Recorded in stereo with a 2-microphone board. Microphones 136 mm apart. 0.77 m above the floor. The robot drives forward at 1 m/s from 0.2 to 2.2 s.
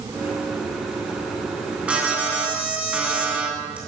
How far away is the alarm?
About 9 m.